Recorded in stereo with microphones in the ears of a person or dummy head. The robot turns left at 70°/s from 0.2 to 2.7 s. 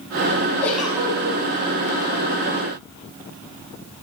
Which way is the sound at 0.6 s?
20° left.